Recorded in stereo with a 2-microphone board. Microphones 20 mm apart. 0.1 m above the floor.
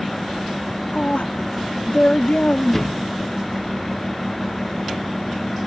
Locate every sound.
0.9 s a woman speaking: 55° left (ahead or behind)
2.7 s a thud: 15° left (ahead or behind)